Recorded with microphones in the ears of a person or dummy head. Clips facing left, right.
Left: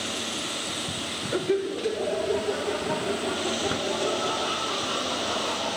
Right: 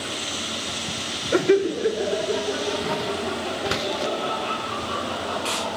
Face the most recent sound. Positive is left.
turn(degrees=5)  # may be behind; listen again after turning